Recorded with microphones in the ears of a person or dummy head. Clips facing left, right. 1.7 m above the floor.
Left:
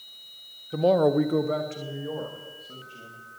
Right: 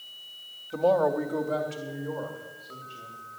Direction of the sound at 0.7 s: 15° left (ahead or behind).